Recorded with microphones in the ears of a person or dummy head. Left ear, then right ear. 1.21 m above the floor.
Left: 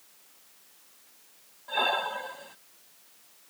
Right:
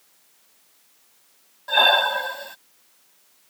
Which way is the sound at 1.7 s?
35° right (ahead or behind).